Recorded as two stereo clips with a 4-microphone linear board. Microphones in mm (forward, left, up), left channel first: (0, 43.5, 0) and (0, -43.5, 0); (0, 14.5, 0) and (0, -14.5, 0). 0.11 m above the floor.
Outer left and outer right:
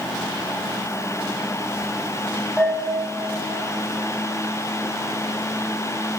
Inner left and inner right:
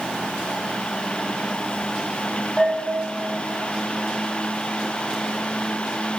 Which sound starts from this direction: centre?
A bell, at 2.6 s.